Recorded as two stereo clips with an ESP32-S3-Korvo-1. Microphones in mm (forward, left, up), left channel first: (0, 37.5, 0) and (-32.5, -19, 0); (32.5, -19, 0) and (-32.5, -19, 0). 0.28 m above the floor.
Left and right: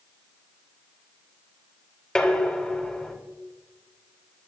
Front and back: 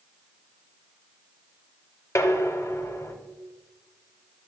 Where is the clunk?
I don't hear a clunk.